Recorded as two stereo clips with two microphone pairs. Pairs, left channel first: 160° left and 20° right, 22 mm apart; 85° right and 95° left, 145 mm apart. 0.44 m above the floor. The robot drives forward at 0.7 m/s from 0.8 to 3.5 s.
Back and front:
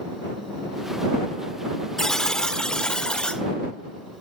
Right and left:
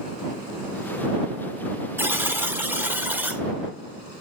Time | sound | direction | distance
2.0 | a buzzer | 145° left | 1.4 m